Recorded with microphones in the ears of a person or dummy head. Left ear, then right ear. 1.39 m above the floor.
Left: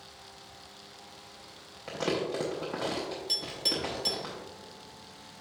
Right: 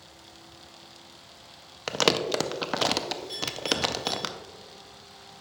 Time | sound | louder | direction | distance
1.9 | crumpling | right 7 dB | 60° right (ahead or behind) | 0.7 m
3.3 | a clink | even | 35° left (ahead or behind) | 2 m